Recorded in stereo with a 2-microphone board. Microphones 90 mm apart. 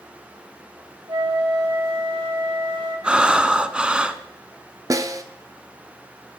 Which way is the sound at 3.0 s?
10° right (ahead or behind).